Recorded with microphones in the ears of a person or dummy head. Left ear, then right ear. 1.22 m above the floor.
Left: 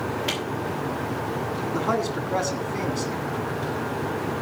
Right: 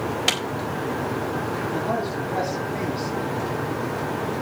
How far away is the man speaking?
About 3.5 m.